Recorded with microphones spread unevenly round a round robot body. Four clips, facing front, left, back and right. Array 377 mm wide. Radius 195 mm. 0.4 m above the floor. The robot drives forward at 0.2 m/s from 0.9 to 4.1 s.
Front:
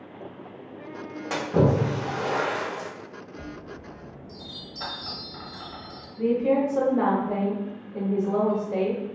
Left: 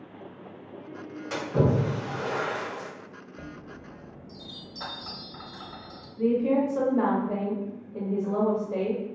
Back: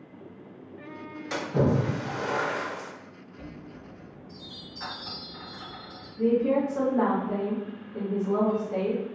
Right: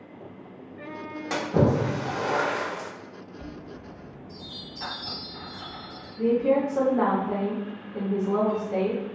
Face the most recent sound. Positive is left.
turn(degrees=115)